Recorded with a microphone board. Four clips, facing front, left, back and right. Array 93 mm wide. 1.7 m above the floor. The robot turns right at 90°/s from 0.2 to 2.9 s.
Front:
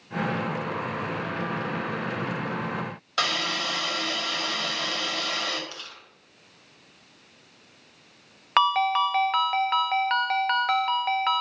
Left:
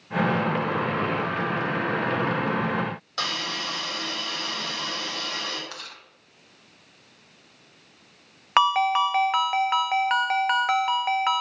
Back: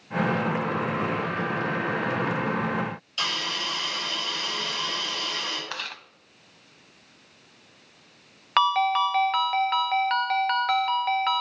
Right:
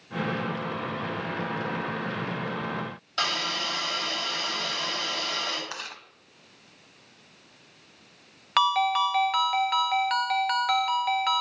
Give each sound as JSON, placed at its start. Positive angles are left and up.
{"t": 3.2, "sound": "a hiss", "azimuth_deg": 5, "distance_m": 6.5}
{"t": 5.7, "sound": "chewing", "azimuth_deg": -165, "distance_m": 1.5}
{"t": 8.6, "sound": "a ringtone", "azimuth_deg": 75, "distance_m": 0.6}